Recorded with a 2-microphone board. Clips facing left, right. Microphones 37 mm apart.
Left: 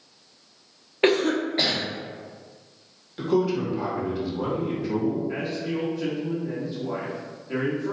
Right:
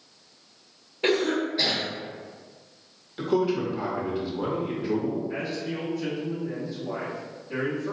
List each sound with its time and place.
1.0 s a cough: 55° left (ahead or behind), 1.0 m
3.2 s a man speaking: 5° right (ahead or behind), 0.7 m
5.3 s a man speaking: 35° left (ahead or behind), 1.3 m